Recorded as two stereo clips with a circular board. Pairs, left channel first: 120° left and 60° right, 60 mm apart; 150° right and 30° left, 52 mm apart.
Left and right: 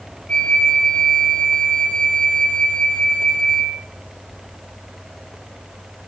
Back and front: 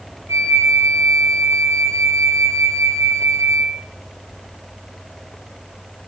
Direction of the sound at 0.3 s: 45° left.